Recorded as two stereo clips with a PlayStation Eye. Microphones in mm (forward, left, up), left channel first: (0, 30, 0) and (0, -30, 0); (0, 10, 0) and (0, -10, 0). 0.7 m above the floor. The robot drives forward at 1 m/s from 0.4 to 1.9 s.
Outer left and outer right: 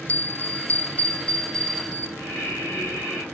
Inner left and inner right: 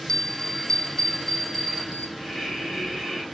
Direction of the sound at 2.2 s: 25° left (ahead or behind).